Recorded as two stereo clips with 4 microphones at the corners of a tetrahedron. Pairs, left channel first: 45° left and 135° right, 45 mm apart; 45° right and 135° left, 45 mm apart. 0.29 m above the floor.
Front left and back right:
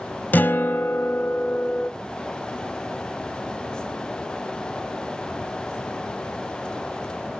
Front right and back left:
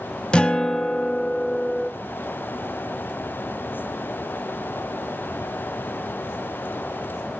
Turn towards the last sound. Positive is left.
turn(degrees=15)